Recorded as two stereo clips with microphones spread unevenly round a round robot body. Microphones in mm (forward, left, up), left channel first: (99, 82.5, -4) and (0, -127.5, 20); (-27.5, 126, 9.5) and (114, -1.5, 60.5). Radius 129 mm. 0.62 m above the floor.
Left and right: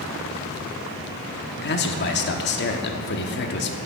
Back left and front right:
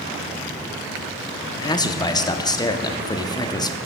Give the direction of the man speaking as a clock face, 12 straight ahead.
9 o'clock.